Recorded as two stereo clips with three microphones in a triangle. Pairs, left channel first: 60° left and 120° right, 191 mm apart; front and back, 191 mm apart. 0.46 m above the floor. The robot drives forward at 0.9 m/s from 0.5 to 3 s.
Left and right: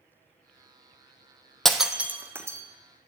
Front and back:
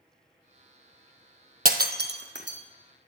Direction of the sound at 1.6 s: 150° left.